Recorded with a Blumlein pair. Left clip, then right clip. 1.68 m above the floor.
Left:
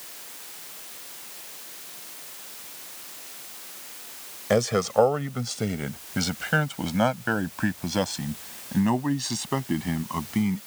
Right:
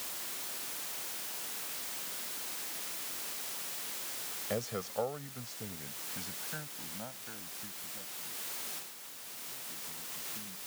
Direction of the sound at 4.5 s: 35° left.